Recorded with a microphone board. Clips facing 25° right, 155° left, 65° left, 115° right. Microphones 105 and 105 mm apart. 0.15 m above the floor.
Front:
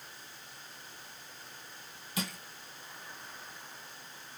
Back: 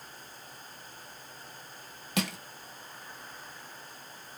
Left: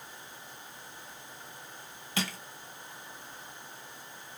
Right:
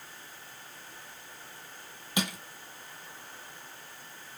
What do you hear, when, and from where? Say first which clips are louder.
2.2 s crushing: back 6 dB, right 2 dB; 175° left, 0.8 m